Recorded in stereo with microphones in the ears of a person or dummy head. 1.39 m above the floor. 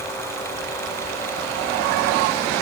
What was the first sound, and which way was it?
Only background noise.